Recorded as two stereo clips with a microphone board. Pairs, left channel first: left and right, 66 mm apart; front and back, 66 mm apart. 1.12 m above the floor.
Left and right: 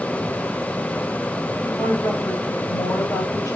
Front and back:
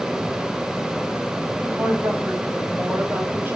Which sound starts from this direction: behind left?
A woman speaking, at 1.6 s.